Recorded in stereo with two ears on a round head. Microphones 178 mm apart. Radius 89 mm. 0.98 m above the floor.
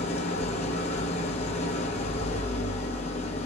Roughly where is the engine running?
Left.